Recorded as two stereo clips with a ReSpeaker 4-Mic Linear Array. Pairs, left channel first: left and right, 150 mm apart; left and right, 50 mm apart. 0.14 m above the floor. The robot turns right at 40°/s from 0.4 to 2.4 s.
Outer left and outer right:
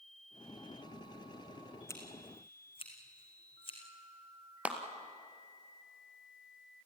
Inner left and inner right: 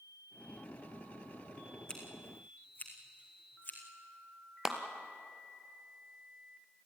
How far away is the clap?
About 1.8 m.